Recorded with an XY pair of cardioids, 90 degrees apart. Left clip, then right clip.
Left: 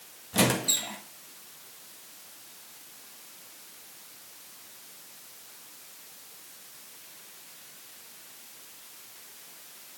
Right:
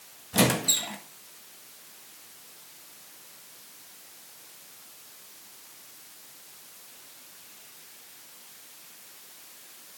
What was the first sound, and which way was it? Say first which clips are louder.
A squeak: right 1 dB; 30° right.